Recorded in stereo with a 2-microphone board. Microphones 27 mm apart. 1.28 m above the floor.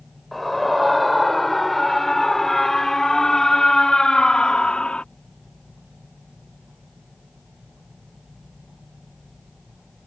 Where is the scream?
5° left (ahead or behind); by 5.0 s 45° left (ahead or behind).